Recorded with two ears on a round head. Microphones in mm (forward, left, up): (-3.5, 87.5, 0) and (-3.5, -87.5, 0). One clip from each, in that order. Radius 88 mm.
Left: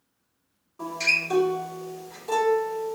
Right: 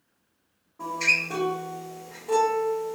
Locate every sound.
0.8 s a guitar: 75° left (ahead or behind), 1.6 m